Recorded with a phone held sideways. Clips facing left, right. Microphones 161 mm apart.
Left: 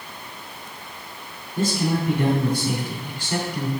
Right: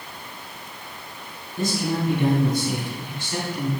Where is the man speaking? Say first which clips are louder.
Left 2 dB; 85° left, 2.5 m.